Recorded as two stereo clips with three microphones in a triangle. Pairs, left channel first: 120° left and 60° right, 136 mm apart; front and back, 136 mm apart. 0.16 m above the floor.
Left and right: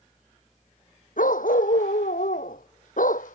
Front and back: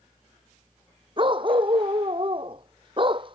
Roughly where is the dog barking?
Behind left.